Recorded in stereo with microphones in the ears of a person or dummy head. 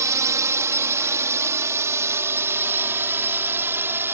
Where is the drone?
15° right (ahead or behind).